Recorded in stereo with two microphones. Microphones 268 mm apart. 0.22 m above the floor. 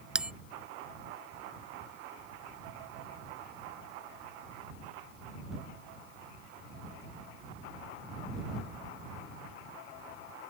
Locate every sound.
0.1 s a bell: 5° right (ahead or behind)